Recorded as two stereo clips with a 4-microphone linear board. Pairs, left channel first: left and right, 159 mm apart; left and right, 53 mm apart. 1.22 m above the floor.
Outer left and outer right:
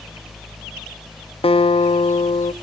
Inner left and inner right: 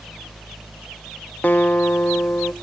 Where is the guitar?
40° left (ahead or behind), 0.6 m.